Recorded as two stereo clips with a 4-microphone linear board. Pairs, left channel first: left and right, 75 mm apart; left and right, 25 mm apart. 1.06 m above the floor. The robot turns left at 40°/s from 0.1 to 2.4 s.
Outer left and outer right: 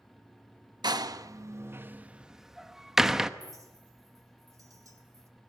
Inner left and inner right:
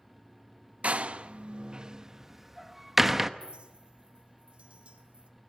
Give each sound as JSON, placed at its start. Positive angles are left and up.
{"t": 0.8, "sound": "a door slam", "side_deg": -70, "distance_m": 0.8}
{"t": 3.4, "sound": "a clink", "side_deg": -50, "distance_m": 2.0}